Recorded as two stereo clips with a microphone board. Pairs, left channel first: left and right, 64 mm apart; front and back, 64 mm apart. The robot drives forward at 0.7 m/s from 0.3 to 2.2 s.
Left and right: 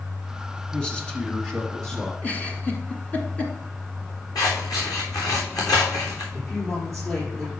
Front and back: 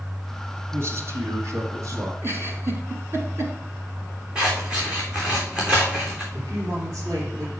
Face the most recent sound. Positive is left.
turn(degrees=155)